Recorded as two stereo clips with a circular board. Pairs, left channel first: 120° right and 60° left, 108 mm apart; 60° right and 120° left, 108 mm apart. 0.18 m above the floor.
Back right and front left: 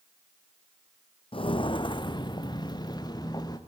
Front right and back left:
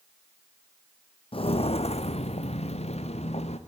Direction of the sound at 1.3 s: 90° right.